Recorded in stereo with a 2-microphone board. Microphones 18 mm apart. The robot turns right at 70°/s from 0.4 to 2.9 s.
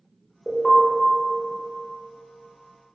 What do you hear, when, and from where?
0.5 s an alarm: 50° left (ahead or behind), 0.6 m; by 0.8 s 40° left (ahead or behind), 0.6 m